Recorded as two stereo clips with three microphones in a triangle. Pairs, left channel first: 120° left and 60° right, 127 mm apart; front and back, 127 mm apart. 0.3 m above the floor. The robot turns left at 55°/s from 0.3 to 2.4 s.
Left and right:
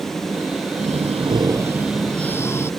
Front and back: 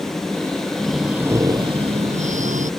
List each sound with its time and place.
0.8 s breathing: 80° right; by 2.7 s 170° right